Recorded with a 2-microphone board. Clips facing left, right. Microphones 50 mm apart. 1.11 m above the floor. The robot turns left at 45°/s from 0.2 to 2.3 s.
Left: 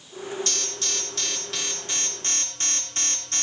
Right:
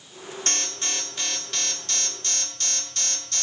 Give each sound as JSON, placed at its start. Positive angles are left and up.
{"t": 0.5, "sound": "an alarm", "azimuth_deg": -135, "distance_m": 2.0}